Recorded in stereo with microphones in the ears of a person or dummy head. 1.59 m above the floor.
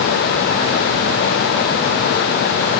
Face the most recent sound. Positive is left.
turn(degrees=-50)  # may be behind; listen again after turning